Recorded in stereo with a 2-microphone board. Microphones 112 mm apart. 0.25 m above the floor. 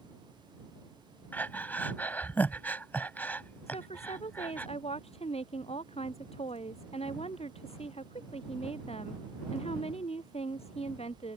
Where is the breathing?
15° left (ahead or behind).